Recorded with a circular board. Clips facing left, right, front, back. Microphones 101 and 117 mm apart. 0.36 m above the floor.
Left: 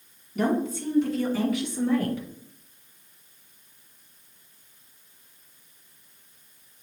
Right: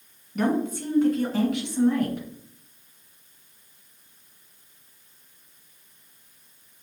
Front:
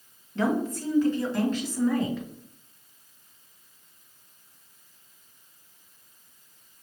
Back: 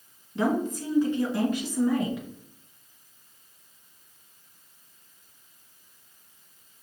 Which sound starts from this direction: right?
A woman speaking, at 0.3 s.